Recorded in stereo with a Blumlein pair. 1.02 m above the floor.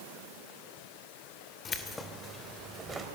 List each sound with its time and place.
1.6 s keys jangling: 25° left, 2.5 m; by 3.1 s 15° right, 3.5 m